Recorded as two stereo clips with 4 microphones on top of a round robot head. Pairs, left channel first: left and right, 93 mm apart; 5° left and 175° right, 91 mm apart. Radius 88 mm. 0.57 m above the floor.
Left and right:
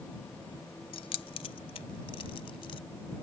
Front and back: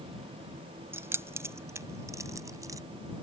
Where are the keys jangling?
120° left; by 2.8 s 130° left.